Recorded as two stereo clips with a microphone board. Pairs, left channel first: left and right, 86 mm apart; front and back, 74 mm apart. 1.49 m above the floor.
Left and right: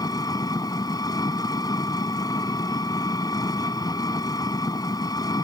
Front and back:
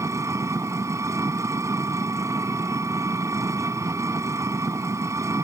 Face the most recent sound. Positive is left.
turn(degrees=135)